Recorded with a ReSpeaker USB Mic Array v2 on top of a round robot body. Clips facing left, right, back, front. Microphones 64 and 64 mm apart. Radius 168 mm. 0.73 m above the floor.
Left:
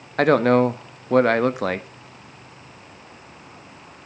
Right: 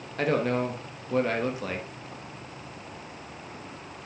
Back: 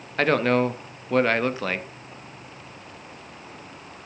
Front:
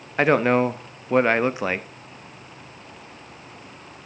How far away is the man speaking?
About 1.0 m.